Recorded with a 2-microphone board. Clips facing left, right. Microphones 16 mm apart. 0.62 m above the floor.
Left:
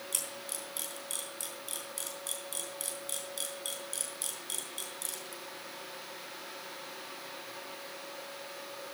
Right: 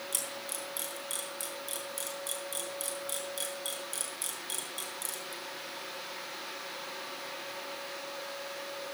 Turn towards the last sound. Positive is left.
turn(degrees=10)  # may be behind; listen again after turning